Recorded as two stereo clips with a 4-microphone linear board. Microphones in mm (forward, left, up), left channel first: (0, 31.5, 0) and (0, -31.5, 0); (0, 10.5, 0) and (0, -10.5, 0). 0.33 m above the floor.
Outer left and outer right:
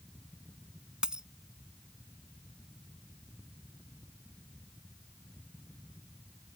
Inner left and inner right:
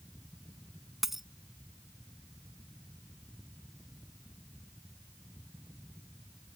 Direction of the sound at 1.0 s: 15° right (ahead or behind).